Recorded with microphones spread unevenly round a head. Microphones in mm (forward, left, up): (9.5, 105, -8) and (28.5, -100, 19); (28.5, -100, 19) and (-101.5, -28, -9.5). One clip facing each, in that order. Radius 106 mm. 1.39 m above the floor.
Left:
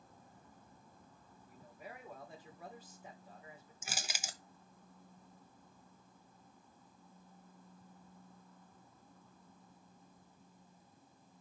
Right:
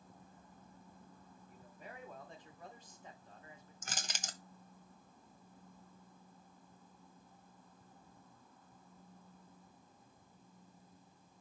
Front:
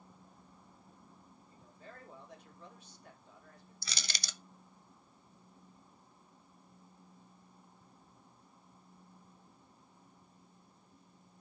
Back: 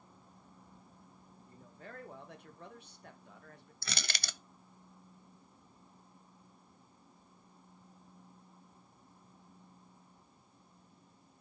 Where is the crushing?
Straight behind, 0.5 m.